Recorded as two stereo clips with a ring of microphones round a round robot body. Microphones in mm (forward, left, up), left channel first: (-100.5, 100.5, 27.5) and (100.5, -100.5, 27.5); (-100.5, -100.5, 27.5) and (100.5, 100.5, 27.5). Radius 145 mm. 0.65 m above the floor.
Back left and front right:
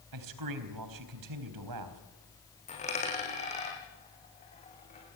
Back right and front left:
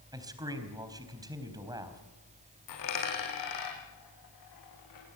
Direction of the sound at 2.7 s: 155° right.